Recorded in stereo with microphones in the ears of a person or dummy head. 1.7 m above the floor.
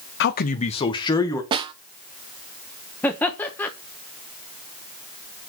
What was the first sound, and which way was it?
A man speaking, 60° left (ahead or behind).